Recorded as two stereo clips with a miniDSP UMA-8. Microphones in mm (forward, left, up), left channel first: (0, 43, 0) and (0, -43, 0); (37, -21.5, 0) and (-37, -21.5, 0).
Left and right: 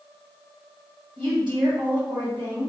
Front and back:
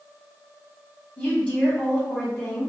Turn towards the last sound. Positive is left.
turn(degrees=-70)